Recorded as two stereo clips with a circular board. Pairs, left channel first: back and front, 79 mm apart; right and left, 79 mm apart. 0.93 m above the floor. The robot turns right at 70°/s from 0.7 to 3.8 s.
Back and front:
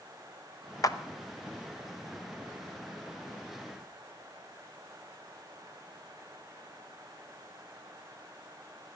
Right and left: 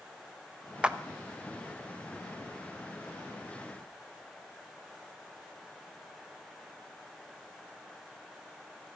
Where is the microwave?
No microwave in this recording.